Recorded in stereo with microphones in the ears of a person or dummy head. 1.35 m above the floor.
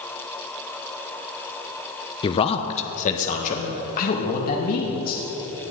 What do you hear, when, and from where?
2.2 s a man speaking: 30° left (ahead or behind), 0.7 m; by 5.2 s 55° left (ahead or behind), 2.5 m